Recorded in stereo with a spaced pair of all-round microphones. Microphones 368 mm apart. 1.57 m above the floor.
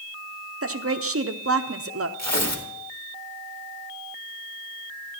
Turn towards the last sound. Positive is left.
turn(degrees=45)  # may be behind; listen again after turning